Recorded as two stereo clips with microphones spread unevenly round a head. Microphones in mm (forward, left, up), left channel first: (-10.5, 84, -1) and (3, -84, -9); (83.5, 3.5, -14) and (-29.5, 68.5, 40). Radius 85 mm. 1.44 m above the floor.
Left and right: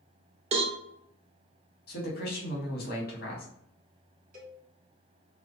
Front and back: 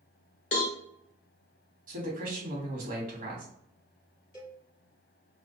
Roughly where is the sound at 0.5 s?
Right.